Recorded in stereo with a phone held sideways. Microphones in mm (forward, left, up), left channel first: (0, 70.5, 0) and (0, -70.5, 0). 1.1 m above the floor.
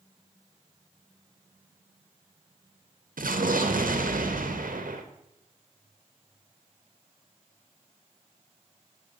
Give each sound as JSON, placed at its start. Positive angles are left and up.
{"t": 3.2, "sound": "an explosion", "side_deg": -80, "distance_m": 0.8}